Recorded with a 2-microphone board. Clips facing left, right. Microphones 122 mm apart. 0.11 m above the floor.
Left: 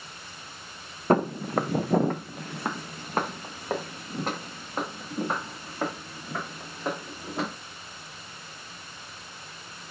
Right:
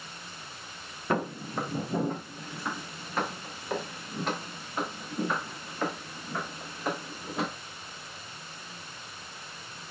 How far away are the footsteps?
About 0.5 m.